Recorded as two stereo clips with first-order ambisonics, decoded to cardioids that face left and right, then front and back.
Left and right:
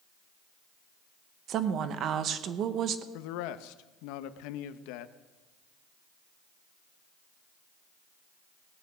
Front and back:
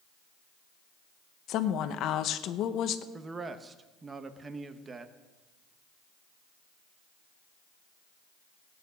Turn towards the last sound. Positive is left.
turn(degrees=105)